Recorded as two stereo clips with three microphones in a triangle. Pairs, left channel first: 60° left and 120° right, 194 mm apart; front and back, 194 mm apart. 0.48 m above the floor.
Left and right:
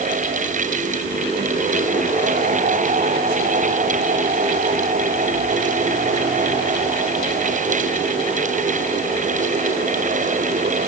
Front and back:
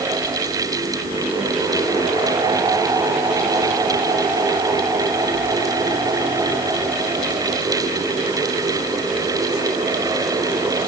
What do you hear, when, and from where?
Only background noise.